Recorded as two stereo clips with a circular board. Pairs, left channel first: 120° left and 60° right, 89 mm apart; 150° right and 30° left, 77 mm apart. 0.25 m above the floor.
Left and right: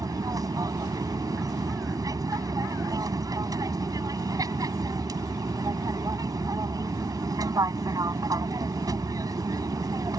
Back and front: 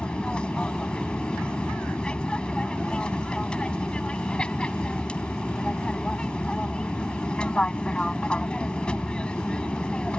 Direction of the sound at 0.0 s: 80° right.